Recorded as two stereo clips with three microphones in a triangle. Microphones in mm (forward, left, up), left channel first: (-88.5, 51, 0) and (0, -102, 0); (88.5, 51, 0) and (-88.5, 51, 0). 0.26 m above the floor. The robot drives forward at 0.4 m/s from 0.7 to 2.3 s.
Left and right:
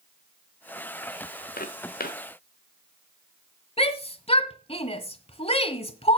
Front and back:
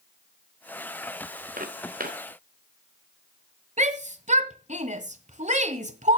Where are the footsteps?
145° left, 1.7 m; by 2.2 s 150° left, 1.9 m.